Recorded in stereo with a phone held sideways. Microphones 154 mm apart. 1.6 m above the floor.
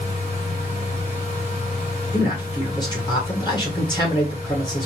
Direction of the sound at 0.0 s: 40° left (ahead or behind).